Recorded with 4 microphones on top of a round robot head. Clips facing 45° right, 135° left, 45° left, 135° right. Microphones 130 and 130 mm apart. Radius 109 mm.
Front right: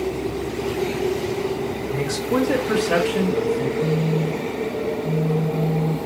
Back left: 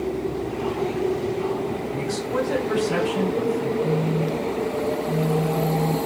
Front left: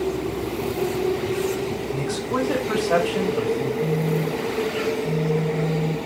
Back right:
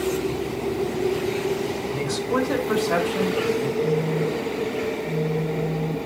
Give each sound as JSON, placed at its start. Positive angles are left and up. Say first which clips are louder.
{"t": 1.9, "sound": "a man speaking", "louder": "front right 7 dB, back right 2 dB", "azimuth_deg": -40, "distance_m": 2.5}
{"t": 3.8, "sound": "a phone buzzing", "louder": "front right 1 dB, back right 1 dB", "azimuth_deg": -5, "distance_m": 1.0}